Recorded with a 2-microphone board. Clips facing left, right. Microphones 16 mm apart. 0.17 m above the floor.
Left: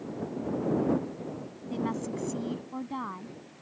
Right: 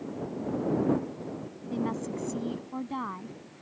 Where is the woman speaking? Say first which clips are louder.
Even; 15° left (ahead or behind); by 3.4 s 15° right (ahead or behind).